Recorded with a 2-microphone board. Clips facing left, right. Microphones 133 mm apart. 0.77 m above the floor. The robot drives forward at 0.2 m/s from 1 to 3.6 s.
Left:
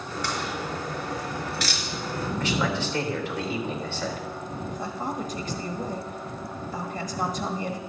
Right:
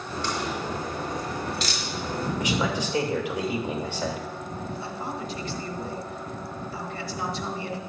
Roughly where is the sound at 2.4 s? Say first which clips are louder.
Left 1 dB; centre.